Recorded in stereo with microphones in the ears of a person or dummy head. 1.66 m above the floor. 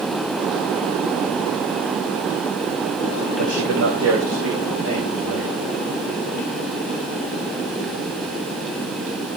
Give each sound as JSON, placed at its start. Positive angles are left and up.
{"t": 3.4, "sound": "a man speaking", "side_deg": -80, "distance_m": 3.0}